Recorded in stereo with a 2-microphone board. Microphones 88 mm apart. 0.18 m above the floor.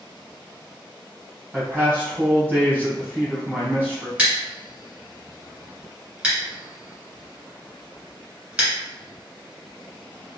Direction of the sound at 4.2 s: 20° right (ahead or behind).